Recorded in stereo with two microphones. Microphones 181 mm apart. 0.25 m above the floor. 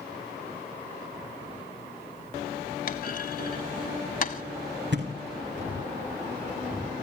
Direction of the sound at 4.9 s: 85° right.